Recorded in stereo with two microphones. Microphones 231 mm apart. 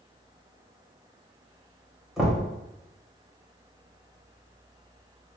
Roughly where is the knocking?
Centre.